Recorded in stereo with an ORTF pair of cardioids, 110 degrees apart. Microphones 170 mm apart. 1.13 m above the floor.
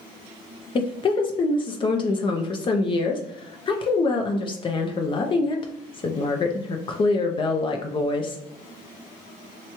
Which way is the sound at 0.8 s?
30° left.